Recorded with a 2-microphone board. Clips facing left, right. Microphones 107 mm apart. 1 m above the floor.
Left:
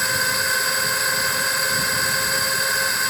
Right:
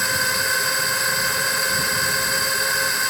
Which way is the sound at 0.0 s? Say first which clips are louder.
Even; centre (ahead or behind).